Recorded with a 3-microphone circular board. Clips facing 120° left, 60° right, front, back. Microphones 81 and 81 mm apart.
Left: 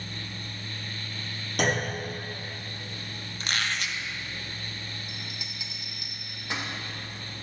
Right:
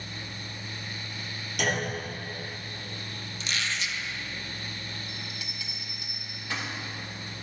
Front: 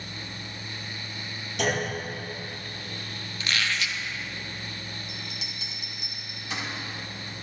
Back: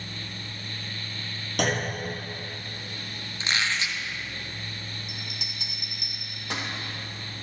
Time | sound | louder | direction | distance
1.6 | a clunk | left 2 dB, even | 165° left | 4 m
3.4 | a squeak | left 2 dB, back 1 dB | 125° left | 0.7 m
5.1 | a bell | right 1 dB, even | 170° right | 1.9 m